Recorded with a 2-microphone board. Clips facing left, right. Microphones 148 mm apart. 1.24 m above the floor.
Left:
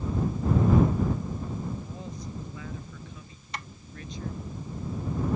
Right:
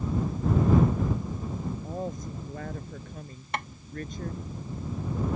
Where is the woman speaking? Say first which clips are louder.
Right 5 dB; 45° right (ahead or behind).